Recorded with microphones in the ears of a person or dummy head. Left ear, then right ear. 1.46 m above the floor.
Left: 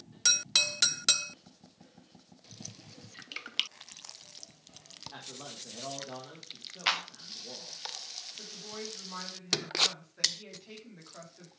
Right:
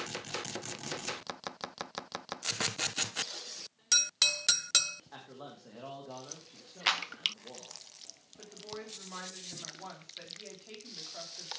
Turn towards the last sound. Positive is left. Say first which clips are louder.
# left 3 dB
turn(degrees=-15)  # may be behind; listen again after turning